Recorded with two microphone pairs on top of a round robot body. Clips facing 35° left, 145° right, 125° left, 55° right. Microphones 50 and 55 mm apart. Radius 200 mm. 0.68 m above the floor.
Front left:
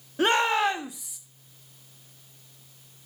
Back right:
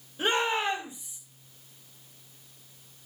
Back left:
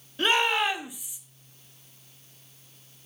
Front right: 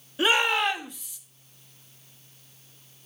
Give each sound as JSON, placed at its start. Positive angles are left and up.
{"t": 0.2, "sound": "a shout", "azimuth_deg": 25, "distance_m": 1.5}